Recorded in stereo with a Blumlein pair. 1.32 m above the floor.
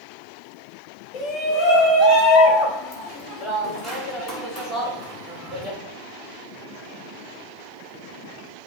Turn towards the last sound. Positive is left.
turn(degrees=15)